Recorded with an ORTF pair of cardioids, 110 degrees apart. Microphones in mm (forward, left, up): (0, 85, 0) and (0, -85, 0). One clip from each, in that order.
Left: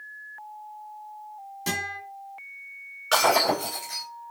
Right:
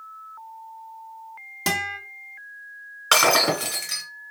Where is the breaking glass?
60° right, 1.8 m.